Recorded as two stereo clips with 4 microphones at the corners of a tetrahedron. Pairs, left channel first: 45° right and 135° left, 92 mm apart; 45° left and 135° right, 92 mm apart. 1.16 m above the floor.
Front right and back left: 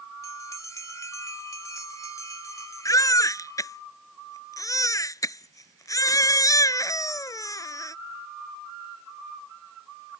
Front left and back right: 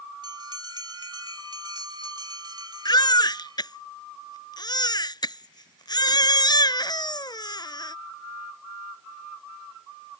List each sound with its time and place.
0.2 s a bell: 100° right
2.9 s a baby crying: 5° left